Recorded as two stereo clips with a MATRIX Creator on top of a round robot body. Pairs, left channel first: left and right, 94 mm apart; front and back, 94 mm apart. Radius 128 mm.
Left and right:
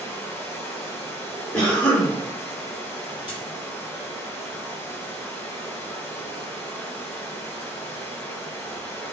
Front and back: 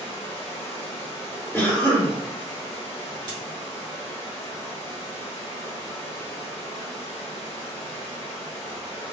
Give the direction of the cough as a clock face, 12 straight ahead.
11 o'clock.